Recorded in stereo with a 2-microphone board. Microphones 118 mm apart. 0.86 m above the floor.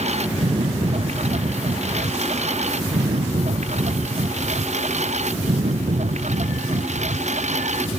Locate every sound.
0.0 s a lawn mower: 70° right (ahead or behind); by 8.0 s 80° right